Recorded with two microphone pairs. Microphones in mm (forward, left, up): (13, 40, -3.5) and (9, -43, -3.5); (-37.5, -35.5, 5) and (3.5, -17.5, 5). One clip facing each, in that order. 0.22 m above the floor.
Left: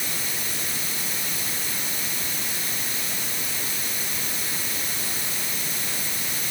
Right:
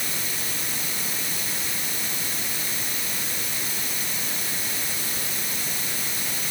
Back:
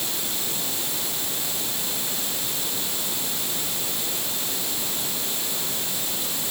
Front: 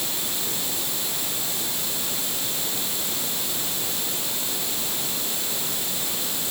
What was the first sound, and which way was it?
Only background noise.